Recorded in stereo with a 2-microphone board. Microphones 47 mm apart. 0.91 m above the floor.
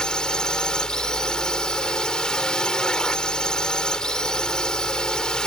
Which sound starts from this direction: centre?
A drone, at 0.0 s.